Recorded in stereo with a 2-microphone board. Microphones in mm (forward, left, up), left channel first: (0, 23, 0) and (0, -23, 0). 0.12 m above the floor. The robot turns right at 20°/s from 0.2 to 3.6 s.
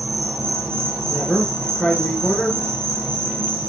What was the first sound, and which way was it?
An insect, 120° right.